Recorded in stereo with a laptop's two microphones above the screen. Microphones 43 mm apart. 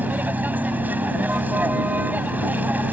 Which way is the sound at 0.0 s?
40° right (ahead or behind).